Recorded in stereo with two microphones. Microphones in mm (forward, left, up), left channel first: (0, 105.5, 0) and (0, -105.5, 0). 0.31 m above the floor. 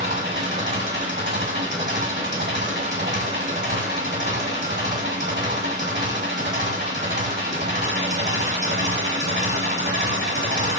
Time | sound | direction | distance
0.0 | an engine running | 55° right (ahead or behind) | 1.0 m